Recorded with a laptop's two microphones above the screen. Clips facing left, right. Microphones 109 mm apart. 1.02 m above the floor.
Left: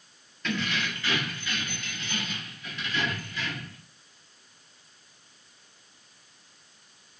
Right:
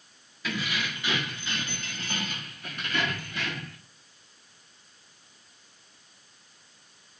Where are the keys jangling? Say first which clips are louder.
Left 2 dB; 5° right (ahead or behind), 1.6 m; by 3.8 s 70° right (ahead or behind), 2.0 m.